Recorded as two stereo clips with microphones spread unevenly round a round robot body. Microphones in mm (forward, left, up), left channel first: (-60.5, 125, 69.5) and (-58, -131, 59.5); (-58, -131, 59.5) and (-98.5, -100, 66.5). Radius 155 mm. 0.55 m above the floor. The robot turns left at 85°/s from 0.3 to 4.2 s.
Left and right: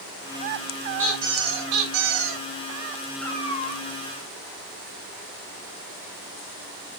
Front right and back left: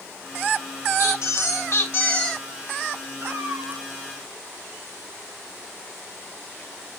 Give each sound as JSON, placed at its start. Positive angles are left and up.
{"t": 1.0, "sound": "a squeak", "azimuth_deg": 10, "distance_m": 3.5}
{"t": 3.2, "sound": "a cat meowing", "azimuth_deg": 180, "distance_m": 1.7}